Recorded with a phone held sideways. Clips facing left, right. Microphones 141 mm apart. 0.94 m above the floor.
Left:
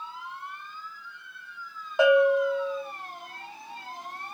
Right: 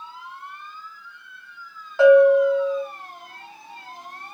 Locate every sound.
2.0 s a bell: 15° left (ahead or behind), 1.4 m